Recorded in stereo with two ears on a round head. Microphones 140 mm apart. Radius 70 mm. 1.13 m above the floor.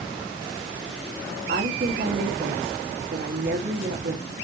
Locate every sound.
1.5 s a woman speaking: 65° right (ahead or behind), 1.6 m